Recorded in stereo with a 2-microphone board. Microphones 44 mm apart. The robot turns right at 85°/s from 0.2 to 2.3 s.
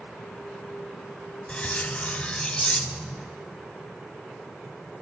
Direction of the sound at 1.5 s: 25° left (ahead or behind).